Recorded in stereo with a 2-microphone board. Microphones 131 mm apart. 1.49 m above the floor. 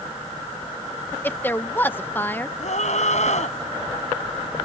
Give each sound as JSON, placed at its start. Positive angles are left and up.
{"t": 1.2, "sound": "a woman speaking", "side_deg": 15}
{"t": 2.6, "sound": "a scream", "side_deg": 65}